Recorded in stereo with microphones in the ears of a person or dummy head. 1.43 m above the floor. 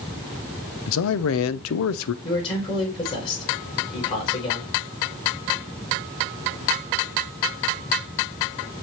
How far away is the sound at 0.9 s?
About 0.6 m.